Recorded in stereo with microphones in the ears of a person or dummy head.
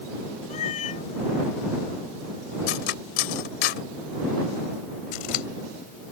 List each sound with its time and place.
0.5 s a cat meowing: 50° left (ahead or behind)
2.7 s cutlery clinking: 70° left (ahead or behind)
5.1 s scissors: 60° left (ahead or behind)